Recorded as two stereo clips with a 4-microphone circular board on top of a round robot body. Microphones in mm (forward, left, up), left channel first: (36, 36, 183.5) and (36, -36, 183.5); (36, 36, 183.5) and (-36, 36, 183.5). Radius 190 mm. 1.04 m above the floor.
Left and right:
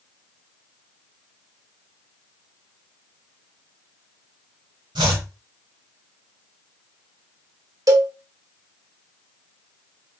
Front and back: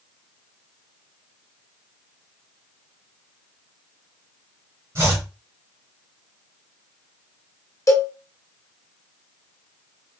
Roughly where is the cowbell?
Ahead right.